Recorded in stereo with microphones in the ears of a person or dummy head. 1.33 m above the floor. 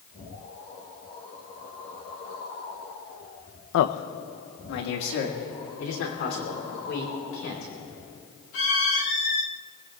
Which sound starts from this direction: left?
A man speaking, at 3.7 s.